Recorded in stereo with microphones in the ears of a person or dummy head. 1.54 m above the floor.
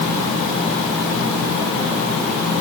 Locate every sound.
Only background noise.